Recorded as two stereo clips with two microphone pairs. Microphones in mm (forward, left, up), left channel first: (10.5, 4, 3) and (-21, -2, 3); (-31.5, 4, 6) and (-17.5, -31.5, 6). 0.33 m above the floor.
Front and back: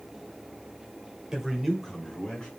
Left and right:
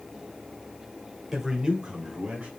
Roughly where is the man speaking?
Behind right.